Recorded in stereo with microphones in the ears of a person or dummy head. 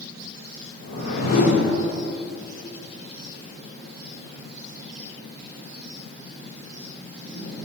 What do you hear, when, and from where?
0.8 s a whoosh: 55° left (ahead or behind), 3 m